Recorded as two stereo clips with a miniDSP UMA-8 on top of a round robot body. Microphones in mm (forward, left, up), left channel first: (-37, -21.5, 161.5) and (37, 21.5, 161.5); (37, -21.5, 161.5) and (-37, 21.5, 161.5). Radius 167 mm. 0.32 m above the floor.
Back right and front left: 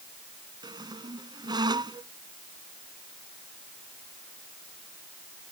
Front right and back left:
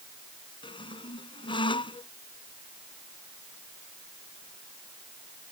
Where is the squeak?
5° right.